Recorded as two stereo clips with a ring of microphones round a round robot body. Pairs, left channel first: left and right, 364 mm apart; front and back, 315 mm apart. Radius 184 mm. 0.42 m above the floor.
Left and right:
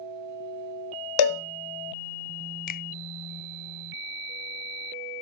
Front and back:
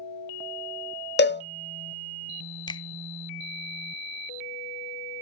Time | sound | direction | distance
1.2 | a cowbell | 60° left | 0.5 m
2.7 | a finger snap | 60° left | 0.6 m